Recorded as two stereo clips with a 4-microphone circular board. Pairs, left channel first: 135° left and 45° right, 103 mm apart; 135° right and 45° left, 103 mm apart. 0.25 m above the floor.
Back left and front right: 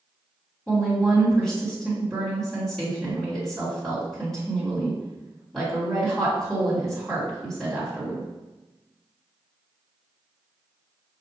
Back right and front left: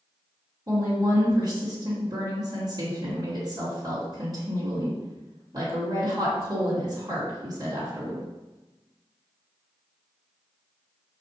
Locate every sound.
0.7 s a woman speaking: 50° left, 1.9 m